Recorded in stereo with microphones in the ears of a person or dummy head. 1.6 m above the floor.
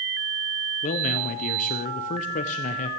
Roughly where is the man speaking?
Left.